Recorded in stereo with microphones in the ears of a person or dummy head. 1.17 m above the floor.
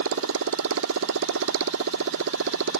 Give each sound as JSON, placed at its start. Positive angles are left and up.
{"t": 0.0, "sound": "a motorcycle", "side_deg": -65}